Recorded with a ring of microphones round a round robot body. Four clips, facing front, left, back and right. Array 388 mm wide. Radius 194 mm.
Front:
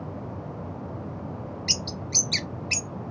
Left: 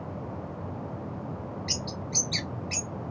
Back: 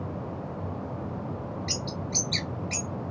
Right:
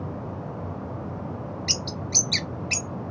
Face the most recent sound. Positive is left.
turn(degrees=-55)